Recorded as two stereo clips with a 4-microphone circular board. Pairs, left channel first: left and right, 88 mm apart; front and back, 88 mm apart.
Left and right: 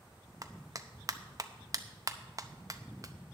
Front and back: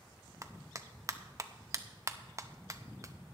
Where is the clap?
135° right, 0.6 m.